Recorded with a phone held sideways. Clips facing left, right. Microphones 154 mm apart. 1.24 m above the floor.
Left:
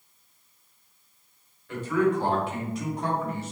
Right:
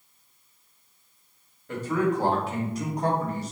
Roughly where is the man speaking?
Right.